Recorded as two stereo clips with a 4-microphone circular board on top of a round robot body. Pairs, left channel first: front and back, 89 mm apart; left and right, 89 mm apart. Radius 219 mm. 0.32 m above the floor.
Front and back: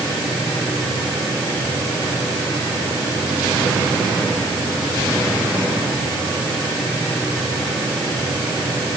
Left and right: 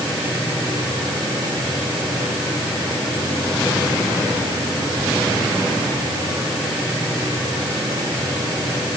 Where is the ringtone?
No ringtone in this recording.